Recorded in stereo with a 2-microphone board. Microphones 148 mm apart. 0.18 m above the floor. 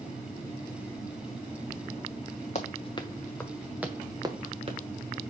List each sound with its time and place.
2.5 s running footsteps: 50° left (ahead or behind), 1.3 m; by 4.8 s 40° right (ahead or behind), 1.6 m